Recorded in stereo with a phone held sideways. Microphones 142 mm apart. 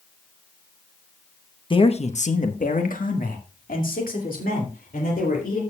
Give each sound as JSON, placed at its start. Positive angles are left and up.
{"t": 1.7, "sound": "a man speaking", "side_deg": 35, "distance_m": 0.9}